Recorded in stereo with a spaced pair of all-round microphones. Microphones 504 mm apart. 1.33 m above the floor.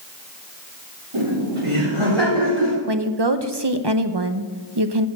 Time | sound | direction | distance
1.1 | laughter | 85° right | 3.5 m
2.9 | a woman speaking | 55° right (ahead or behind) | 0.8 m